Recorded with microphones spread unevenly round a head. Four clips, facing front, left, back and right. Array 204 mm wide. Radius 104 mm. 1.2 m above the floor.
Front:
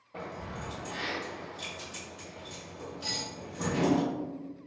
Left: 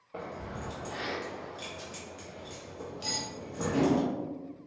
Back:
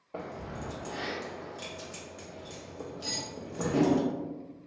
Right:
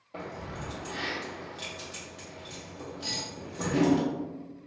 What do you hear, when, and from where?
0.1 s keys jangling: straight behind, 0.6 m
3.0 s cutlery clinking: 105° left, 1.5 m